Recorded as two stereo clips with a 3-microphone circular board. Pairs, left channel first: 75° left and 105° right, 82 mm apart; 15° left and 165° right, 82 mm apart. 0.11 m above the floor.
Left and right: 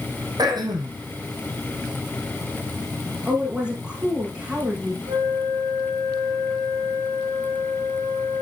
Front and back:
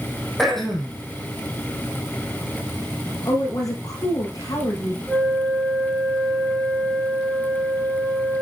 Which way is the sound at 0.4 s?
70° right.